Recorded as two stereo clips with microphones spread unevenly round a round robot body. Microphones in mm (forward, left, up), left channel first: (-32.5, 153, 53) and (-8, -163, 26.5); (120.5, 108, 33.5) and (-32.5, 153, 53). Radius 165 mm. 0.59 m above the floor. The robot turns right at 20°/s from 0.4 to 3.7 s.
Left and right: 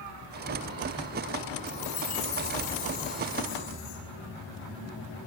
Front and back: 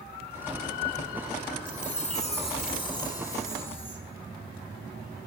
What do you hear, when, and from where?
1.7 s a chime: 20° left, 6 m; by 4.0 s 60° left, 6 m